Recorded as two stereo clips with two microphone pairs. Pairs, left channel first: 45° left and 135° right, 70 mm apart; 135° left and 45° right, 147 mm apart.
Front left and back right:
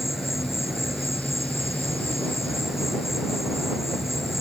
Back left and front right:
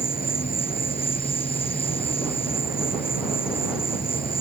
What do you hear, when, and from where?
0.0 s an insect: 140° left